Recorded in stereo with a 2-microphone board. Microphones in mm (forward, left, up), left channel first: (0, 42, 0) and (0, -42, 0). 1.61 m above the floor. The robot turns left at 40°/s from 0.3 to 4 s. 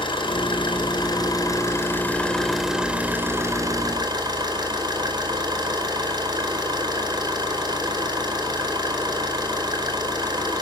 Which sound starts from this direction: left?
An engine running, at 0.0 s.